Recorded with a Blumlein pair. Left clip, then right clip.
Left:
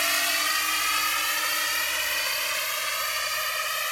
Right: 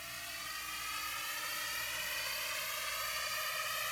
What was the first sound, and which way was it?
A drone, 50° left.